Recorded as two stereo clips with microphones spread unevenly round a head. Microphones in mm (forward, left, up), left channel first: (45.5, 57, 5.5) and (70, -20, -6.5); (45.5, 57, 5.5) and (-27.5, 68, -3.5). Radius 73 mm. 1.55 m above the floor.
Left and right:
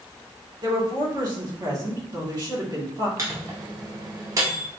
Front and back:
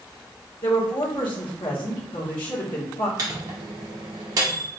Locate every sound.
0.6 s a woman speaking: 40° right, 1.9 m
3.2 s a microwave: 135° right, 0.7 m